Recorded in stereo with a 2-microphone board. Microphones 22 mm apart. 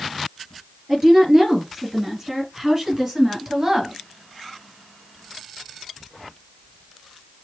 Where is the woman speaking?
10° right (ahead or behind), 4.5 m; by 3.9 s 5° right (ahead or behind), 2 m.